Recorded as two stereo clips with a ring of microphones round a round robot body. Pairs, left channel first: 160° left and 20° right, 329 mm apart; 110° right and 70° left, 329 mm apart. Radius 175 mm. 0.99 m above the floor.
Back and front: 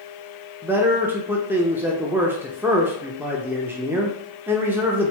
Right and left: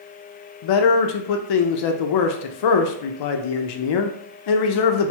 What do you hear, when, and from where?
0.6 s a man speaking: 105° right, 0.6 m